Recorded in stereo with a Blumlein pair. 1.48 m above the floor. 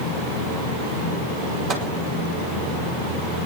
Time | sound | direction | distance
1.7 | a microwave | 30° right | 3.5 m